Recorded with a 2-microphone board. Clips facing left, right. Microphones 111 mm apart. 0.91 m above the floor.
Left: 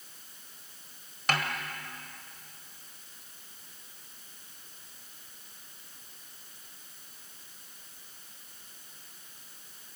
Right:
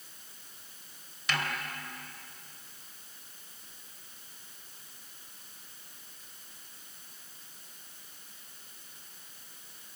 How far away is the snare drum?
About 2.5 m.